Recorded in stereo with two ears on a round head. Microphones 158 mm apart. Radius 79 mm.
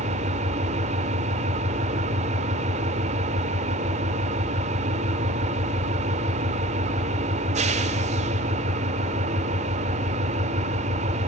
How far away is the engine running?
About 1.8 m.